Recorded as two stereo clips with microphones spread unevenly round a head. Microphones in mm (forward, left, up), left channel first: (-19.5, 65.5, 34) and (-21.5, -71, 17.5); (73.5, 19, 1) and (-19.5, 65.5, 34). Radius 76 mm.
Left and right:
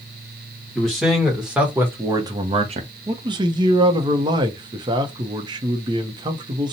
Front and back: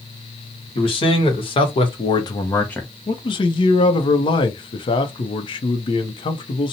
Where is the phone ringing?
I don't hear a phone ringing.